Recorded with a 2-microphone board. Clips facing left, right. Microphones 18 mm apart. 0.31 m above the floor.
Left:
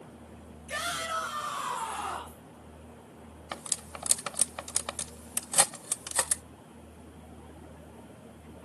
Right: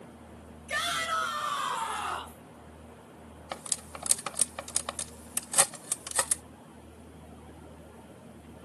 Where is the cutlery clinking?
Centre (ahead or behind), 0.5 m.